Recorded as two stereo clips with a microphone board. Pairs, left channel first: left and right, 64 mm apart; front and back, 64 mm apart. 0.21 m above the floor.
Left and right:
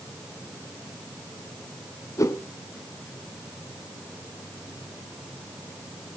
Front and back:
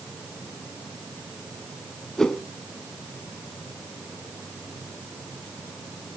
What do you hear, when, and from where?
2.2 s a whoosh: 80° left, 0.7 m